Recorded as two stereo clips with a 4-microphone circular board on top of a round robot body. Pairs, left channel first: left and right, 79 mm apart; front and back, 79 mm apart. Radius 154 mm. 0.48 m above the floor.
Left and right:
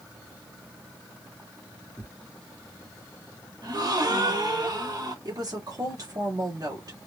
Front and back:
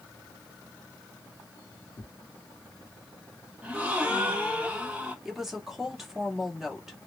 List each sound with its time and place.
2.0 s tearing paper: 15° right, 1.0 m
3.6 s a gasp: 110° right, 1.6 m
5.2 s a woman speaking: 95° right, 1.6 m